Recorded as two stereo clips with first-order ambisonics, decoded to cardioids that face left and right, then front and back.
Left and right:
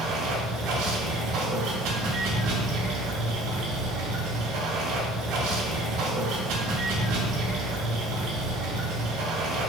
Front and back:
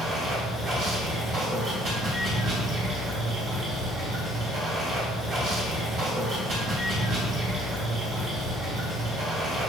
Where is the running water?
125° right, 3.5 m.